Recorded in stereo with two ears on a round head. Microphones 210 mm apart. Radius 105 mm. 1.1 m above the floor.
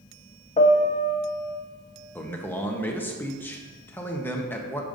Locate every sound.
0.6 s a piano: 30° left (ahead or behind), 0.7 m
2.1 s a man speaking: 10° left (ahead or behind), 1.0 m